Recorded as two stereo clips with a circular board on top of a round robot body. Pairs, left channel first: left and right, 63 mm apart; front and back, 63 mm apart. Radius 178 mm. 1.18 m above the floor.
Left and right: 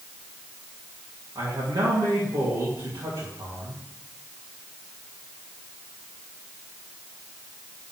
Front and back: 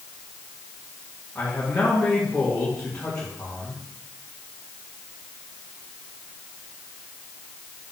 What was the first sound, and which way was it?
A man speaking, 75° right.